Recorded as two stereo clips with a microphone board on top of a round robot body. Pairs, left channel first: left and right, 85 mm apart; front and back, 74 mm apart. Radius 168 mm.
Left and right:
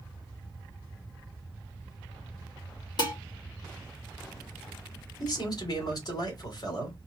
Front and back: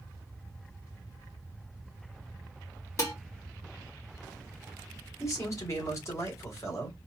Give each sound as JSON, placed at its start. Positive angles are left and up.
{"t": 3.0, "sound": "dishes clattering", "azimuth_deg": 50, "distance_m": 3.0}
{"t": 5.2, "sound": "a man speaking", "azimuth_deg": 50, "distance_m": 3.0}